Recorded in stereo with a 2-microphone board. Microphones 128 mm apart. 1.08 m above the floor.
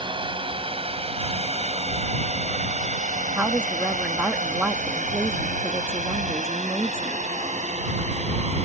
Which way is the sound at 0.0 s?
40° right (ahead or behind).